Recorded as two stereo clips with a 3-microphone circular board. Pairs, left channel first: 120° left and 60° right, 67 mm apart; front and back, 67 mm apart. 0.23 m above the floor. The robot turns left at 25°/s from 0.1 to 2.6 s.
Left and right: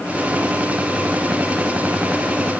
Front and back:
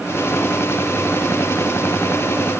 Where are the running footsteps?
I don't hear running footsteps.